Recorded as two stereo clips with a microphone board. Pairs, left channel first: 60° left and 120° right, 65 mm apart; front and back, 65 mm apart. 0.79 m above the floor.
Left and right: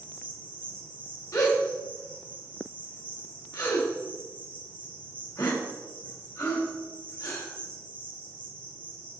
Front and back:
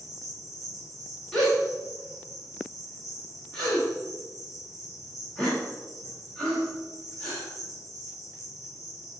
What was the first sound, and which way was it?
An insect, straight ahead.